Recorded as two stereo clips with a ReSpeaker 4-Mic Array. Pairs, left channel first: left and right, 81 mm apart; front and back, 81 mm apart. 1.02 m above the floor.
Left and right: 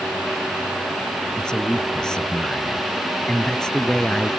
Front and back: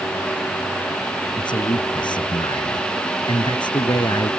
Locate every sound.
1.4 s a man speaking: 10° left